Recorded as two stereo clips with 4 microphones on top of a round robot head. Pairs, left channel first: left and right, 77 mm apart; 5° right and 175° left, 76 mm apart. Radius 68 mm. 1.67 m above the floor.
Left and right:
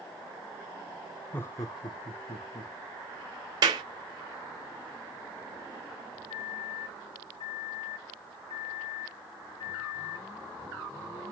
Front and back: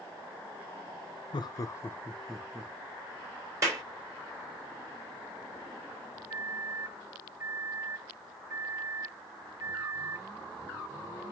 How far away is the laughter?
About 0.6 m.